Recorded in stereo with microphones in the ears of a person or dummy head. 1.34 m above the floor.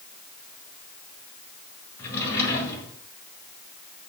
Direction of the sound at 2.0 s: 20° left (ahead or behind).